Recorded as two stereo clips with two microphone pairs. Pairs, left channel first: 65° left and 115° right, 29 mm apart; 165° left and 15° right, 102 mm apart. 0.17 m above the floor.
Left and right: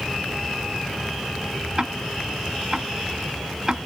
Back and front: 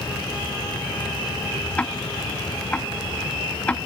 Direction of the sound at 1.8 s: 120° right.